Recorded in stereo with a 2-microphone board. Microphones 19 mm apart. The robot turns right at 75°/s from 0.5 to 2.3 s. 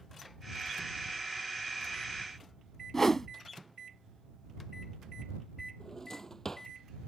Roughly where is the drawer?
Left.